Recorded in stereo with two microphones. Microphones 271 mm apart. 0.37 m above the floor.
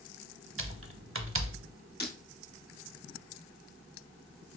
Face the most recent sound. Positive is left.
turn(degrees=35)  # may be behind; listen again after turning